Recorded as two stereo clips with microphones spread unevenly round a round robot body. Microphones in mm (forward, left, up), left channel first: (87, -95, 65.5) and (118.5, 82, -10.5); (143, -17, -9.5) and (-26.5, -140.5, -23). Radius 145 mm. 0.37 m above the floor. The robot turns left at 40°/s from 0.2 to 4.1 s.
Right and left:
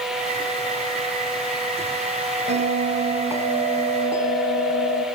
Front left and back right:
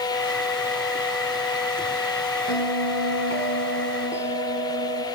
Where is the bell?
45° left, 3 m; by 5.0 s 20° right, 3 m.